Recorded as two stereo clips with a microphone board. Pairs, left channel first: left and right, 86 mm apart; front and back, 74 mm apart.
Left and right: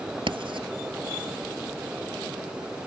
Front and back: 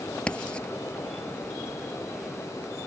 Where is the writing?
75° right.